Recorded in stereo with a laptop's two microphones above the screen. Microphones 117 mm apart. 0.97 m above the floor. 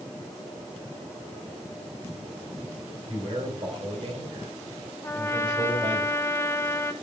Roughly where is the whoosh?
I don't hear a whoosh.